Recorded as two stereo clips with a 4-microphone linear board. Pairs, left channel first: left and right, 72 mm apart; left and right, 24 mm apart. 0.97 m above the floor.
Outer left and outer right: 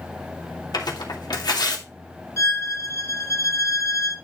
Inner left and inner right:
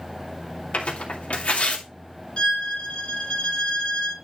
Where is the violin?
45° left (ahead or behind), 2 m.